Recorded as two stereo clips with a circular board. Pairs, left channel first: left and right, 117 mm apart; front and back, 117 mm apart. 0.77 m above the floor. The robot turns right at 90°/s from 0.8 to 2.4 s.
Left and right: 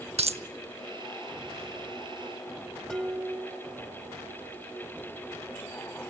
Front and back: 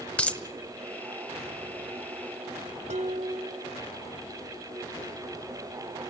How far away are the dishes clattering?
About 1.7 m.